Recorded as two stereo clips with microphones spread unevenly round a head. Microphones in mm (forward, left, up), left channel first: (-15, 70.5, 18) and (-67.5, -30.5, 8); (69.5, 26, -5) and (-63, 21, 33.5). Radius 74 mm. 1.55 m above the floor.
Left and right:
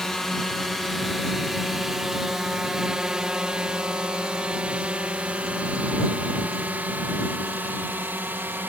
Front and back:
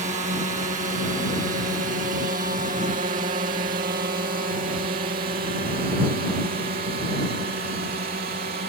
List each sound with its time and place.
0.0 s a drone: 150° left; by 8.7 s 170° left